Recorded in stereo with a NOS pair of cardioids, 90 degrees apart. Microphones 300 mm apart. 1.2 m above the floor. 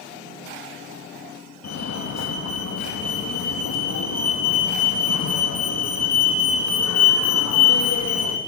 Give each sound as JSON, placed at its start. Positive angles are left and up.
{"t": 1.6, "sound": "a fire alarm", "azimuth_deg": 60, "distance_m": 3.0}